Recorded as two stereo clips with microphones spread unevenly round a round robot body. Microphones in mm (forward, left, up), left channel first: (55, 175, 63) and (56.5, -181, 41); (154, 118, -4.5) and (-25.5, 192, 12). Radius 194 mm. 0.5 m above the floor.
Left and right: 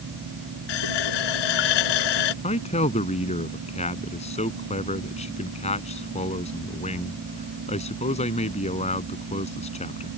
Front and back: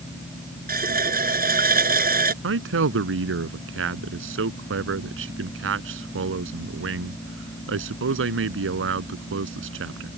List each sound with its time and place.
0.7 s a running tap: 115° left
2.4 s a man speaking: 165° left